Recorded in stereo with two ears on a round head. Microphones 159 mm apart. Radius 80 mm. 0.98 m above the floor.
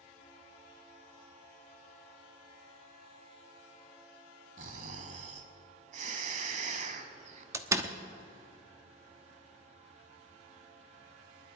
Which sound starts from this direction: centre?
A door slam, at 7.5 s.